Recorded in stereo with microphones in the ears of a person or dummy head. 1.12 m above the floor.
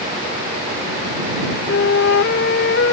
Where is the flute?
55° left (ahead or behind).